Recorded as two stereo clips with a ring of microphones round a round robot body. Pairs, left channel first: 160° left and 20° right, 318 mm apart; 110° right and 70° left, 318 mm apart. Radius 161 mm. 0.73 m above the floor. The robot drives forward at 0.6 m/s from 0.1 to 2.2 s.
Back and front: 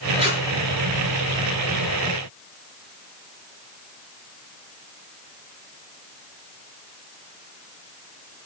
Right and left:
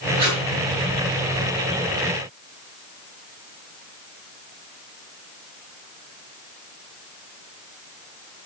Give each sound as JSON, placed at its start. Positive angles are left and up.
{"t": 0.2, "sound": "tape being pulled", "azimuth_deg": 50, "distance_m": 4.5}